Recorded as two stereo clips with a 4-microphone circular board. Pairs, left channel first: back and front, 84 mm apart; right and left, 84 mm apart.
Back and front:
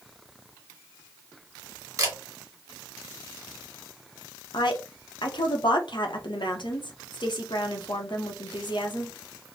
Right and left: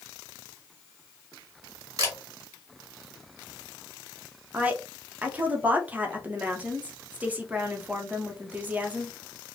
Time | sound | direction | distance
2.0 | a camera shutter | 45° left | 2 m
4.5 | a woman speaking | 160° left | 1.0 m